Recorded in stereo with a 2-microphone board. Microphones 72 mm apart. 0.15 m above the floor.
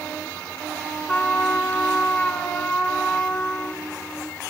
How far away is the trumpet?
About 1.1 m.